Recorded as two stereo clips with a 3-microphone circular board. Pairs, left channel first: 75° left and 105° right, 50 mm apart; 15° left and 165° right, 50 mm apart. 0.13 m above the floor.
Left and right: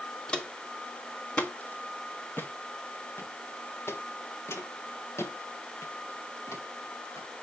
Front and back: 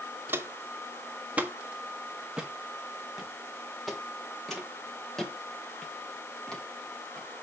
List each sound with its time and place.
0.3 s footsteps: 150° left, 2 m; by 7.3 s 90° left, 5 m